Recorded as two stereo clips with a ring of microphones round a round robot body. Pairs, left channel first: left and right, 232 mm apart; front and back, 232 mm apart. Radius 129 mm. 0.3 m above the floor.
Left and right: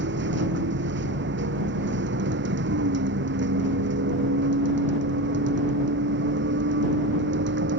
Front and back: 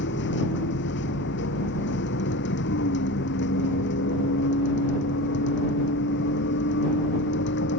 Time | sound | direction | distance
0.0 | a vehicle | 50° right | ?